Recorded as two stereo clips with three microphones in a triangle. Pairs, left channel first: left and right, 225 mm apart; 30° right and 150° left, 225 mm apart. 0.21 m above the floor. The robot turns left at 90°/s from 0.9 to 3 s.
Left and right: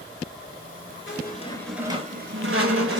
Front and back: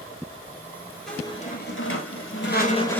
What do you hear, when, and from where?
1.1 s a squeak: 60° left, 1.1 m; by 3.0 s 115° right, 1.1 m